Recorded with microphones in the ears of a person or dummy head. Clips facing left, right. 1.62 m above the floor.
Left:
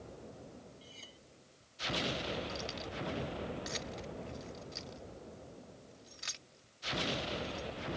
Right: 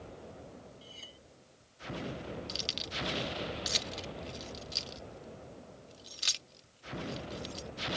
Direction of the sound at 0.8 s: 5° right (ahead or behind).